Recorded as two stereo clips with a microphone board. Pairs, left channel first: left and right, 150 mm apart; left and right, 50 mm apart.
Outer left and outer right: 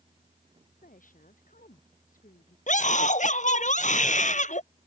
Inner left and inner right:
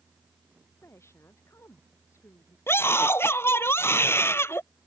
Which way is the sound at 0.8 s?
65° left (ahead or behind).